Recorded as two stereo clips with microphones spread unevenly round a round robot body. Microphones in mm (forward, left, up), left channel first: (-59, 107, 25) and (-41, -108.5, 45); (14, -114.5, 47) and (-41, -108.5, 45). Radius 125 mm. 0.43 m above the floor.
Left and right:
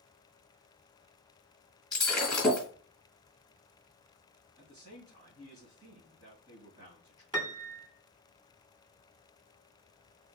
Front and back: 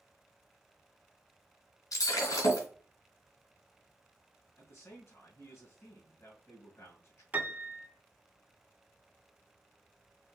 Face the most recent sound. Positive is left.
turn(degrees=-155)